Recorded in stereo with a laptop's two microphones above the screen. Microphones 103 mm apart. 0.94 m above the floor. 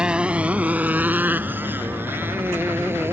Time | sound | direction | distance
0.0 | a motorcycle | 10° right (ahead or behind) | ?